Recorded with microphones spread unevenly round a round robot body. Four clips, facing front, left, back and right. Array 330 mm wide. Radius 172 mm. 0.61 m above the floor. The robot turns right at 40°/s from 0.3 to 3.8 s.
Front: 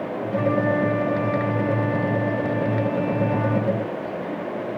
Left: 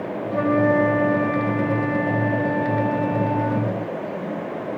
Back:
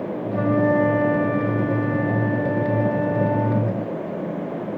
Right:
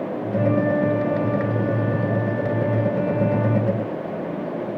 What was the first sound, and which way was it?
A flute, 100° left.